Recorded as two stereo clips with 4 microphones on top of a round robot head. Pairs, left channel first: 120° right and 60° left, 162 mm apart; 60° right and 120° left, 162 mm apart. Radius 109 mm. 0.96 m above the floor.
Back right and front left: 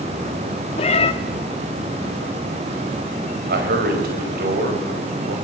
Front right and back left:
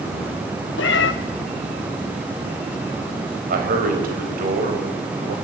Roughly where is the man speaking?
Left.